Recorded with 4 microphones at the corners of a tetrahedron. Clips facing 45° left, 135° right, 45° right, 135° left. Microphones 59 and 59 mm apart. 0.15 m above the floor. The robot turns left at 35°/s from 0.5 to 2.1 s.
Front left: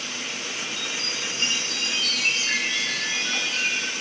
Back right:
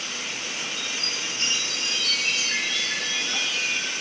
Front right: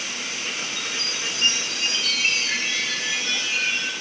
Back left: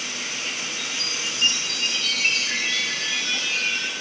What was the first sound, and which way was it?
A chime, 80° left.